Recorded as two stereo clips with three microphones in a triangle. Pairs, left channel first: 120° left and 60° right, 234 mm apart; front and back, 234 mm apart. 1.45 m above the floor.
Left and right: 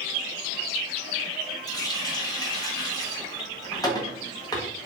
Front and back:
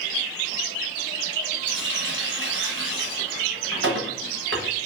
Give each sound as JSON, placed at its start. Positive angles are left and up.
{"t": 1.7, "sound": "a running tap", "azimuth_deg": -170, "distance_m": 1.0}